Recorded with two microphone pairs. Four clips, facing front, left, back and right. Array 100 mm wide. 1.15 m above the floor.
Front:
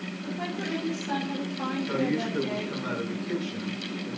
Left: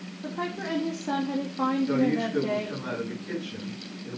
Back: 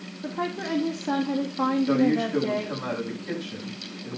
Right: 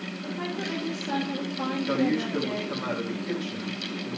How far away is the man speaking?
About 8.5 m.